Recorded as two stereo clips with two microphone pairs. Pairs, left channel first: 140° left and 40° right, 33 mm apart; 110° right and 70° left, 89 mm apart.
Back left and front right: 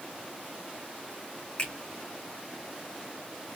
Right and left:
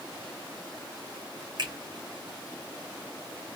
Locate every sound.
1.6 s a finger snap: 95° left, 1.9 m